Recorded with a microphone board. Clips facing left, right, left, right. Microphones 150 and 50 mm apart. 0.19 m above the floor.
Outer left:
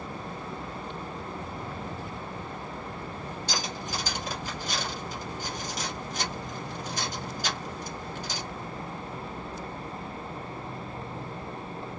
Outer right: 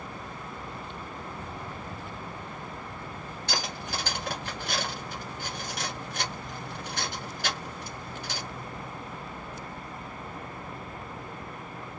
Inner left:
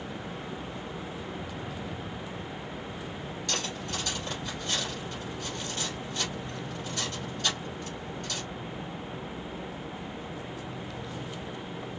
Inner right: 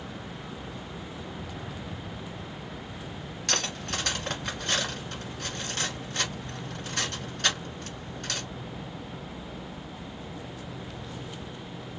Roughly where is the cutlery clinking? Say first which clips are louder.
Outer right 1 dB, inner right 4 dB; right.